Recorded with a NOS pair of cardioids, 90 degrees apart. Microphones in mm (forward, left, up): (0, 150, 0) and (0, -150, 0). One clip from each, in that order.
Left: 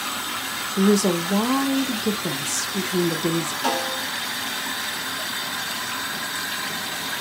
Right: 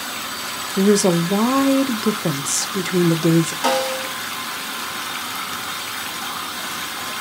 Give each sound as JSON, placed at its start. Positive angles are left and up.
{"t": 0.8, "sound": "a woman speaking", "azimuth_deg": -20, "distance_m": 0.5}
{"t": 3.6, "sound": "a snare drum", "azimuth_deg": -45, "distance_m": 1.3}